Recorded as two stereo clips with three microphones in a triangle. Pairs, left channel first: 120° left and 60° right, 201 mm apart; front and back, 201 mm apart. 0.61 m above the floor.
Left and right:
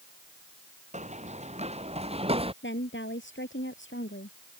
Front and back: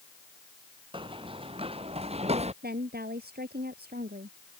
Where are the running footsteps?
115° right; by 2.5 s 120° right.